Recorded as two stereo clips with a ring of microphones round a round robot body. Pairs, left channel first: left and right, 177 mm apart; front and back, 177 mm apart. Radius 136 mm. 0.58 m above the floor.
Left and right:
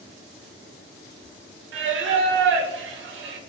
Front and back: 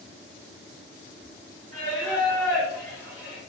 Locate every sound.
1.7 s singing: 80° right, 0.6 m